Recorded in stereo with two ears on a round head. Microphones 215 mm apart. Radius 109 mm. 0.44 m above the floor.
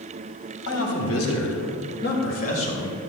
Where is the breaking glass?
I don't hear breaking glass.